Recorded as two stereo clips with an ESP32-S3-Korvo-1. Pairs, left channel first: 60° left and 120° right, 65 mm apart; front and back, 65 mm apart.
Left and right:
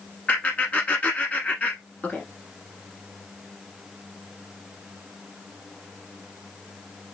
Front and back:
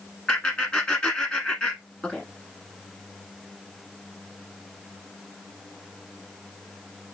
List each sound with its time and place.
0.3 s laughter: 45° left, 1.1 m